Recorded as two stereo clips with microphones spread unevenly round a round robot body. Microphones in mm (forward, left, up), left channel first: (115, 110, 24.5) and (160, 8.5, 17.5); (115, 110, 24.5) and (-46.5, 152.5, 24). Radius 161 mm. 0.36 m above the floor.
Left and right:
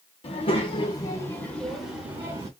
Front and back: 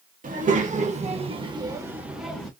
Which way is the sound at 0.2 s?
145° left.